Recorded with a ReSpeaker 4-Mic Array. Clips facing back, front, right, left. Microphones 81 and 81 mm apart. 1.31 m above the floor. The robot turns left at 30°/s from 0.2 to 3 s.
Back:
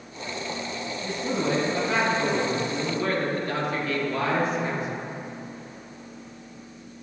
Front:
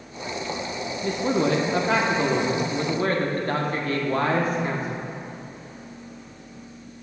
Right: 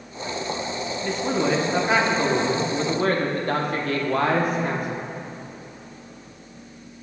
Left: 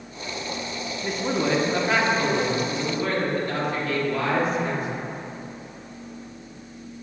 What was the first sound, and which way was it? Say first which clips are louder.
A man speaking: front 5 dB, right 1 dB; 10° left.